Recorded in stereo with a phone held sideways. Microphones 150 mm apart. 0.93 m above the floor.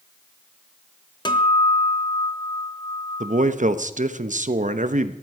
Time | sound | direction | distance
1.2 | a guitar | 30° left (ahead or behind) | 1.1 m
3.2 | a man speaking | 55° right (ahead or behind) | 0.8 m